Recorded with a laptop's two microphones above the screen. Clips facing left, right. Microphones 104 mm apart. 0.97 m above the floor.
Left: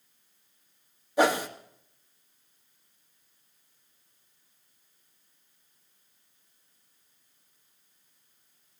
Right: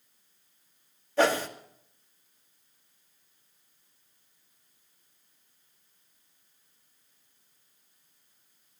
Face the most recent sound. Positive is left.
turn(degrees=15)  # may be behind; listen again after turning